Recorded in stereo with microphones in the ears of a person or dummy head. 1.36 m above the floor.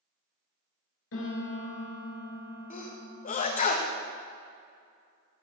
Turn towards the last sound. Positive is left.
turn(degrees=35)  # may be behind; listen again after turning